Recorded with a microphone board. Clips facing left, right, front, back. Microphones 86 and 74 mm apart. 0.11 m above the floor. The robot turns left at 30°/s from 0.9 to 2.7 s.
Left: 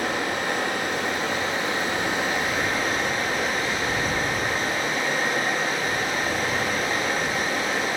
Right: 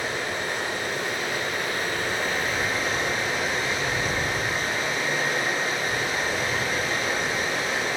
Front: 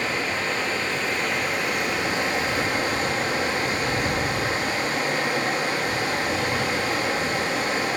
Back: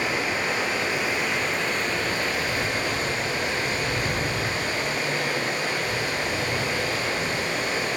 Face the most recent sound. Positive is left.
turn(degrees=50)